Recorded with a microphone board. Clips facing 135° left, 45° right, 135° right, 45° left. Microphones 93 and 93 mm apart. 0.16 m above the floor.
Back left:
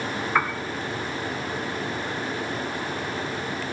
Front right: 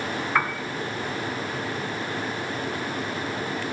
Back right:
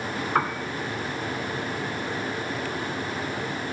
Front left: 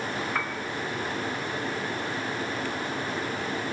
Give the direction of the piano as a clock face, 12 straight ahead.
5 o'clock.